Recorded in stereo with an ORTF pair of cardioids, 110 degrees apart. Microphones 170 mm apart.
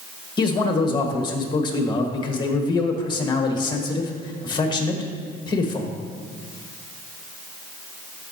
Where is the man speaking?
25° left, 1.6 m.